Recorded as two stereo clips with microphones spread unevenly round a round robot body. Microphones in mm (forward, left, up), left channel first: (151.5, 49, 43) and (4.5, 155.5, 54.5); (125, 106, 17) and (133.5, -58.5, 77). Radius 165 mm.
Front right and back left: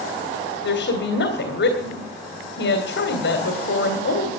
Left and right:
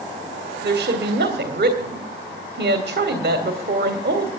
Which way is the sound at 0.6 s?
55° right.